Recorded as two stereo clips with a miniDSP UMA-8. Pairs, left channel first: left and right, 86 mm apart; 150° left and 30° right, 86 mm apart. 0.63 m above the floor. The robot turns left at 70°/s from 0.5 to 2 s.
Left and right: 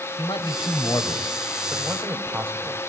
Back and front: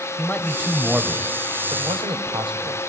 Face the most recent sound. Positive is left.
turn(degrees=-25)